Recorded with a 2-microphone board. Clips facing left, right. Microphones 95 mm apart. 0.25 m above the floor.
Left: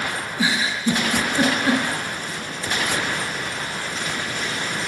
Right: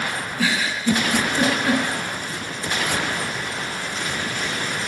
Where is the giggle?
20° left (ahead or behind), 1.7 m.